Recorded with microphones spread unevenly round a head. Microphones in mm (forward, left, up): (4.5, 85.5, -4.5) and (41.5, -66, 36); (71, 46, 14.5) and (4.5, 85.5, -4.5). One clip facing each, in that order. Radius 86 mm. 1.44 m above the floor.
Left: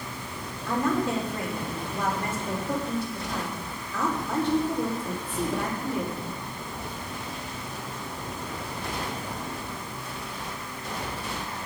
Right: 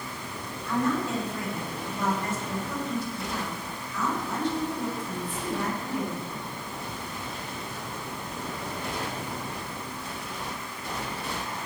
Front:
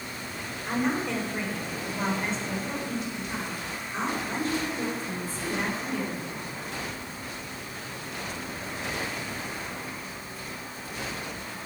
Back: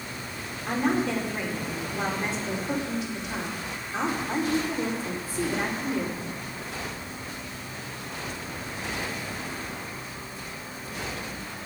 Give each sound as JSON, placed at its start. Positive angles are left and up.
{"t": 0.7, "sound": "a woman speaking", "azimuth_deg": 145, "distance_m": 4.5}